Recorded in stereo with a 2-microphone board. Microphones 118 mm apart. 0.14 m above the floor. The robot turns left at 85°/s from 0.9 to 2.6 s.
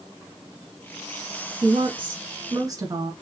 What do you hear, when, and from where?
1.6 s a woman speaking: 50° right, 1.5 m; by 3.1 s 135° right, 1.5 m